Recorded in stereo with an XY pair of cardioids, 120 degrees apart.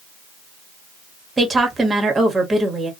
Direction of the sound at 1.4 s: 20° right.